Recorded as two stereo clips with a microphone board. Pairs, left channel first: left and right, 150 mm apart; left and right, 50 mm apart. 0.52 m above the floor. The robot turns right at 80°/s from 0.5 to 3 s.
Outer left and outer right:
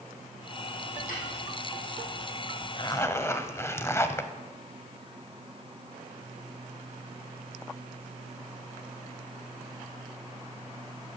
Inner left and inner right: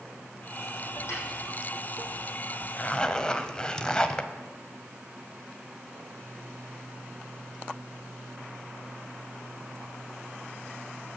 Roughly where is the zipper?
Left.